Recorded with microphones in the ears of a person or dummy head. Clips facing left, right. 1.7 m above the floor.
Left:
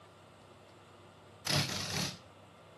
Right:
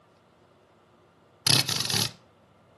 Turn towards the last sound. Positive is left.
turn(degrees=-80)